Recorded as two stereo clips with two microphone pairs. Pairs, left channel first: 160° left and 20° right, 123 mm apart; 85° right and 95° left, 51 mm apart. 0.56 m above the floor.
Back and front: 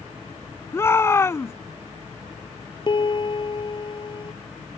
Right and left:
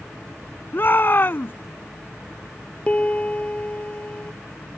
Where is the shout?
130° right.